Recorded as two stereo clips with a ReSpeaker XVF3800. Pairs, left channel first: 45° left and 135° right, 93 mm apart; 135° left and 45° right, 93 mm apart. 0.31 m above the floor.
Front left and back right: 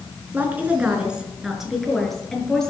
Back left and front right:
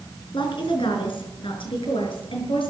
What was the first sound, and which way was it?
A woman speaking, 155° left.